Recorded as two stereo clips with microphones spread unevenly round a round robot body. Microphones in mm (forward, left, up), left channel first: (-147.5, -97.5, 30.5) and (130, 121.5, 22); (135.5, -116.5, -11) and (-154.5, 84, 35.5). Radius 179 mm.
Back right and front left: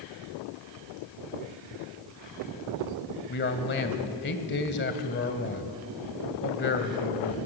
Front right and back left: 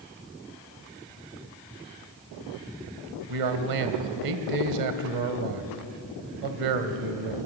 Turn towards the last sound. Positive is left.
turn(degrees=165)